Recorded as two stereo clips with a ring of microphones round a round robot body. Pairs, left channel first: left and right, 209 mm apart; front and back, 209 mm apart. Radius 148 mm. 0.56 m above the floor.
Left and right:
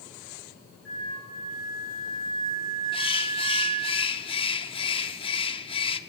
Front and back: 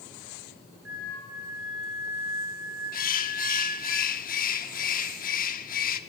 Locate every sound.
0.8 s a flute: straight behind, 3.5 m
2.9 s a bird: 30° left, 0.8 m